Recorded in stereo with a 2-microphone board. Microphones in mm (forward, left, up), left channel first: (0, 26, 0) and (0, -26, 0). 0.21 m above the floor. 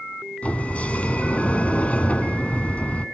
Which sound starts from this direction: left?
A sliding door, at 0.4 s.